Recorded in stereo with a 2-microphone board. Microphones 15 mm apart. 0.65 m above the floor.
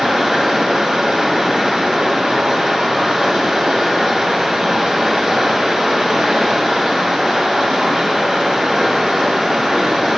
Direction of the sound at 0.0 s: 65° right (ahead or behind).